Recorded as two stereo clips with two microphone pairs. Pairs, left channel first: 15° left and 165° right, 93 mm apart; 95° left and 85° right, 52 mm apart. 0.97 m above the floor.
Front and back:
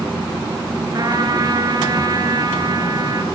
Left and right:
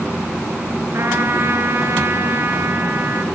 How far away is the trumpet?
About 2.5 m.